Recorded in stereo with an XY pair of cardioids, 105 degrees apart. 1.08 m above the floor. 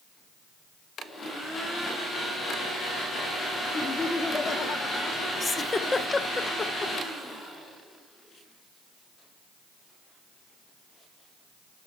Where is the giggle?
25° left, 0.6 m.